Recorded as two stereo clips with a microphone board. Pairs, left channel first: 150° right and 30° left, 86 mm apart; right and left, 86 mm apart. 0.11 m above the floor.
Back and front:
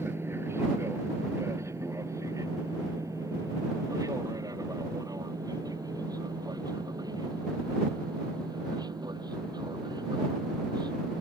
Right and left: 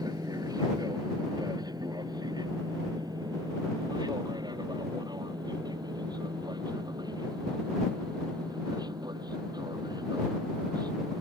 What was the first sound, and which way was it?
An aircraft, 80° left.